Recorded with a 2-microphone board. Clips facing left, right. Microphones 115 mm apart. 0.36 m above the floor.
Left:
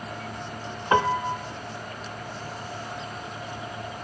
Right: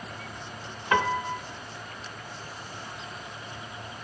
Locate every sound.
0.9 s a piano: 25° left (ahead or behind), 0.6 m